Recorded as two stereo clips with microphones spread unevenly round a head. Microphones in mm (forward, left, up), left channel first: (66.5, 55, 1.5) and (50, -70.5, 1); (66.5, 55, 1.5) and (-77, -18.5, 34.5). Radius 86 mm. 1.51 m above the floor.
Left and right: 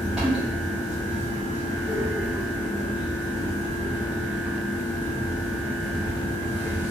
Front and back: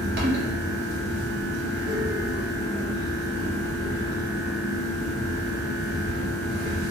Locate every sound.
0.0 s a fan: 175° left, 0.8 m